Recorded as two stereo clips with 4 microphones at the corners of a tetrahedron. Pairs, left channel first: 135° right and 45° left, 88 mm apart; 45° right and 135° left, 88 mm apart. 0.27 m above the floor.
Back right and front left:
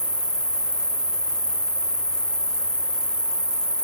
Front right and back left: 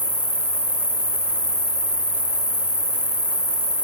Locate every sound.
0.0 s an insect: 150° left, 0.9 m